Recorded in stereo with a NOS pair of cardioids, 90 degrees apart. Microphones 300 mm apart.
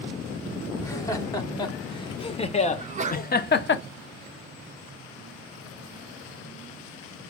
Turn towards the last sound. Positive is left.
turn(degrees=-25)